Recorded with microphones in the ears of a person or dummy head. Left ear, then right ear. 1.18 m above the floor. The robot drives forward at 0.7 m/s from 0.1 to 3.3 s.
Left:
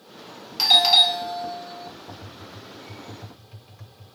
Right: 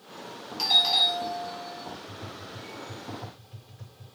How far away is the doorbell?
About 0.6 m.